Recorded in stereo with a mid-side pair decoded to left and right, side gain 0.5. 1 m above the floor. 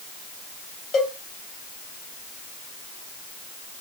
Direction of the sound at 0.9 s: 55° left.